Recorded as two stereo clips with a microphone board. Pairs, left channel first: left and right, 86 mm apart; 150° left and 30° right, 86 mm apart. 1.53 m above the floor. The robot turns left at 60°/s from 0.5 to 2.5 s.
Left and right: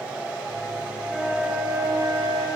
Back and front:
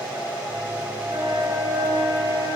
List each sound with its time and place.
1.1 s a flute: 10° left, 6 m; by 2.5 s 75° right, 6 m